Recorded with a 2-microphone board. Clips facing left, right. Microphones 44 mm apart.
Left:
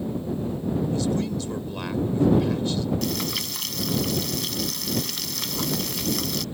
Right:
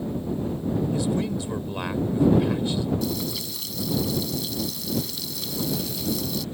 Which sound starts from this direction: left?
Frying, at 3.0 s.